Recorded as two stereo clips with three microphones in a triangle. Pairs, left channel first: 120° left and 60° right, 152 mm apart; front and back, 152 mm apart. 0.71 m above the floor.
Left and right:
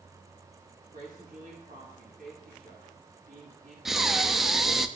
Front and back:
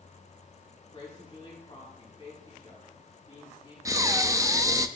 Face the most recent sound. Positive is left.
turn(degrees=-145)